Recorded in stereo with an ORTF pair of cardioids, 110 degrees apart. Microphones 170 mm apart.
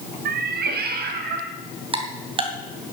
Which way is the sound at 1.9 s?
30° right.